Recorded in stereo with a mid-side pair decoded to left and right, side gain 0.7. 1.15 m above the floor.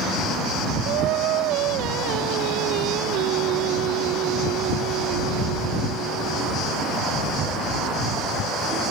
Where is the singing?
65° right.